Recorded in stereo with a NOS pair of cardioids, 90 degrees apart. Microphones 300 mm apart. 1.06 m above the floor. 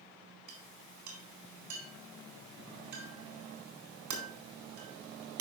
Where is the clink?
65° right, 4 m.